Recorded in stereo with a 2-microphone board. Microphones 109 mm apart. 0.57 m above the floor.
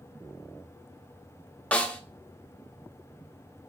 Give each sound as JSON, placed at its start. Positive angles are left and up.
{"t": 1.7, "sound": "a snare drum", "side_deg": 10, "distance_m": 1.0}